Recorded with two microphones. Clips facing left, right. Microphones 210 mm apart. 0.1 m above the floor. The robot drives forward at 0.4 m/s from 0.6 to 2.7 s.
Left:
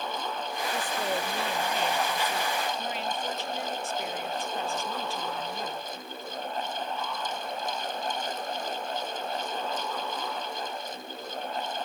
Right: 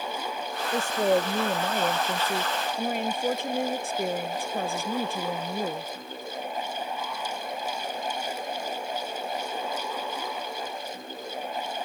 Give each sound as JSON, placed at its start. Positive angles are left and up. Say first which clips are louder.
{"t": 0.7, "sound": "a woman speaking", "louder": "right 10 dB", "side_deg": -45}